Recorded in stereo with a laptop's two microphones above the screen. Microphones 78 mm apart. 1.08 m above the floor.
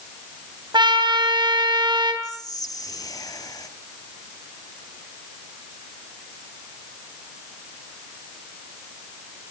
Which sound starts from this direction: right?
A trumpet, at 0.7 s.